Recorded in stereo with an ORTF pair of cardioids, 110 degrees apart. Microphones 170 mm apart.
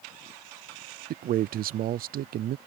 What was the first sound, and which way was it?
A man speaking, 60° right.